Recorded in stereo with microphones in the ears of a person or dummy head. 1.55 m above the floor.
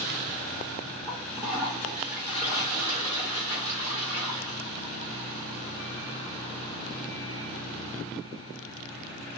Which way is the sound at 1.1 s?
10° right (ahead or behind).